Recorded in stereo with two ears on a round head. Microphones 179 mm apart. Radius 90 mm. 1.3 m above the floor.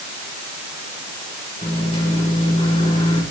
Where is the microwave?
35° left (ahead or behind), 5 m.